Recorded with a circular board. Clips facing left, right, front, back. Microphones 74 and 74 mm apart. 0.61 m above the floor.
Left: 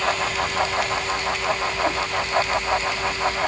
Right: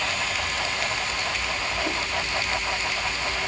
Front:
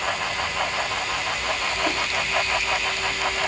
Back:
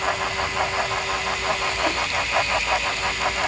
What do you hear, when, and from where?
Only background noise.